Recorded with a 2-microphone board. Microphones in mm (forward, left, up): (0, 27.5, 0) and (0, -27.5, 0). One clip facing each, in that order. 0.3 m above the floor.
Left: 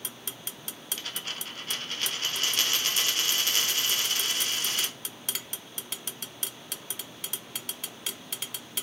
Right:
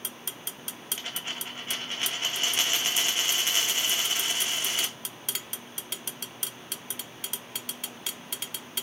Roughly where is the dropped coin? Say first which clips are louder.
Right 1 dB; right.